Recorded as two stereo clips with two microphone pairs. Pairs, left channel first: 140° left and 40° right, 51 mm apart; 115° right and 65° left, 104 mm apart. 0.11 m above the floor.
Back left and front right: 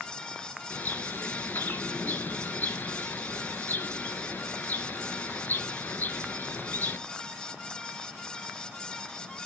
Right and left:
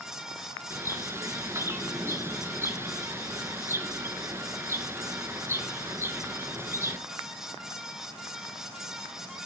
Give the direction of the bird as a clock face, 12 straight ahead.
8 o'clock.